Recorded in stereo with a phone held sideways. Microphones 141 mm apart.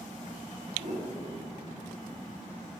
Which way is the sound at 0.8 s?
60° right (ahead or behind).